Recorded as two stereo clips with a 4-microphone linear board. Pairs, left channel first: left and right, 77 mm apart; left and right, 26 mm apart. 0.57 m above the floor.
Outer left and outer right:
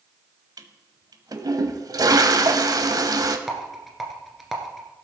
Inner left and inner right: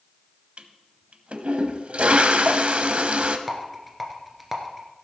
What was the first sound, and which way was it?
A toilet flushing, 55° right (ahead or behind).